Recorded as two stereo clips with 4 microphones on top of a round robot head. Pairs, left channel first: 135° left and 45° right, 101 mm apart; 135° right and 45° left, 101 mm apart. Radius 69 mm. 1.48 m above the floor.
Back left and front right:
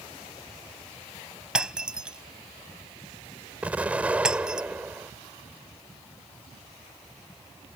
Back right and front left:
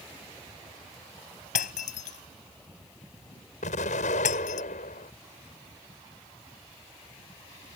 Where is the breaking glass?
130° right.